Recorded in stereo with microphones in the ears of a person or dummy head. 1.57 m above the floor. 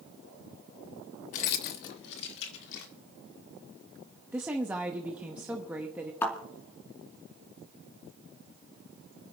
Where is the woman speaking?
5° right (ahead or behind), 0.7 m.